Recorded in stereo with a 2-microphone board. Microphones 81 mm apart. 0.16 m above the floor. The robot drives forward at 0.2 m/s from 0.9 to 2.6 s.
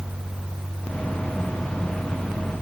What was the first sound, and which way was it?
Only background noise.